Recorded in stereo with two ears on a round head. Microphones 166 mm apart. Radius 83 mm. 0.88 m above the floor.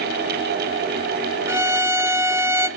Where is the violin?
15° right (ahead or behind), 0.9 m.